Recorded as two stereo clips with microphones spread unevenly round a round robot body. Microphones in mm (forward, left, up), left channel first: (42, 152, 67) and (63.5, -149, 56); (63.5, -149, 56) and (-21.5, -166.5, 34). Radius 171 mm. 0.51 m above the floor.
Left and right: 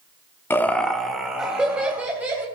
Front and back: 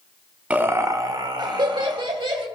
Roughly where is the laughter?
Behind.